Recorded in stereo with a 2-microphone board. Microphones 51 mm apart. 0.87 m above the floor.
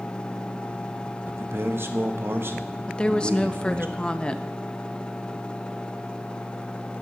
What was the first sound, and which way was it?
A man speaking, 50° right (ahead or behind).